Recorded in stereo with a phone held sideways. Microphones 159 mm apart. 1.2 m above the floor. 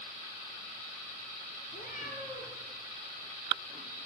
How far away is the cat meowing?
About 7.5 m.